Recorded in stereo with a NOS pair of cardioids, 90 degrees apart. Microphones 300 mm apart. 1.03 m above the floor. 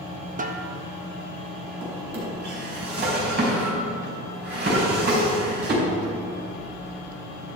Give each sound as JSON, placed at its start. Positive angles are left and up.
{"t": 0.4, "sound": "a snare drum", "azimuth_deg": -30, "distance_m": 0.9}
{"t": 1.8, "sound": "a drawer", "azimuth_deg": -35, "distance_m": 4.0}